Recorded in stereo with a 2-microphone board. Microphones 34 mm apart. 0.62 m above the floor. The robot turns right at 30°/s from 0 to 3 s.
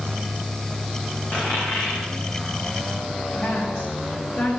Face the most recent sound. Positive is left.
turn(degrees=70)  # may be behind; listen again after turning